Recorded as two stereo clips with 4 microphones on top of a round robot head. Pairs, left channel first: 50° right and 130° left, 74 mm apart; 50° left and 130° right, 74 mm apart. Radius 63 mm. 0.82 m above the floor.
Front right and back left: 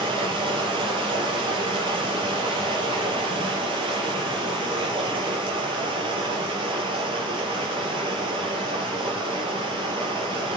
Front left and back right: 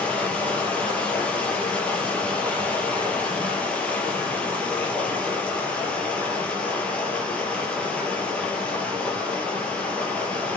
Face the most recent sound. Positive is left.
turn(degrees=125)